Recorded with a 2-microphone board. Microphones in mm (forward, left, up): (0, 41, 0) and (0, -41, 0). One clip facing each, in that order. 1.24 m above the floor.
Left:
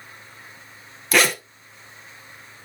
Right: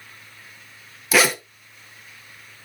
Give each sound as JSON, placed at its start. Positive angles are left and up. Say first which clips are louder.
{"t": 1.1, "sound": "a zipper", "louder": "right 1 dB", "side_deg": -5, "distance_m": 0.8}